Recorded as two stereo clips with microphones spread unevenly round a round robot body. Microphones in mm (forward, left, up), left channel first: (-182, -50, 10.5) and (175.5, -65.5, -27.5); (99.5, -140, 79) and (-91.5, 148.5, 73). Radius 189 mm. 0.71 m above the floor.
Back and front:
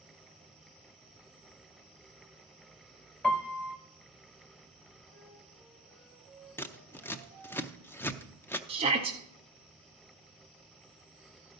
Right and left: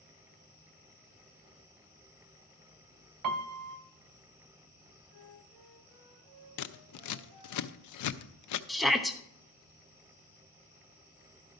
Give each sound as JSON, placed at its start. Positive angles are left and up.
{"t": 3.2, "sound": "a piano", "azimuth_deg": 95, "distance_m": 0.5}
{"t": 5.1, "sound": "a flute", "azimuth_deg": 85, "distance_m": 5.0}
{"t": 6.6, "sound": "scissors", "azimuth_deg": -95, "distance_m": 0.6}
{"t": 8.7, "sound": "a shout", "azimuth_deg": 35, "distance_m": 0.8}